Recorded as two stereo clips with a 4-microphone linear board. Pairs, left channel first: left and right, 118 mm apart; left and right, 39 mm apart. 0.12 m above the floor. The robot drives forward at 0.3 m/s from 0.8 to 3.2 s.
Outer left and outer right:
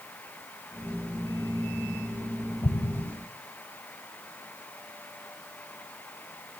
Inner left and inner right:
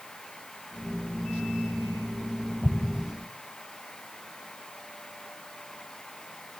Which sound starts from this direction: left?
An explosion, at 2.6 s.